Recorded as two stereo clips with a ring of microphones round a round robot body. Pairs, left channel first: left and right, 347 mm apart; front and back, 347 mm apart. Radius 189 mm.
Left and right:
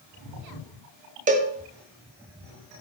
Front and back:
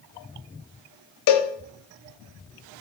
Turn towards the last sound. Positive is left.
turn(degrees=-25)